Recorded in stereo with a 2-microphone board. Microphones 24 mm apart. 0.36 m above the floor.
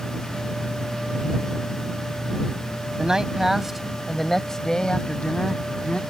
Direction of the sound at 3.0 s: 30° right (ahead or behind).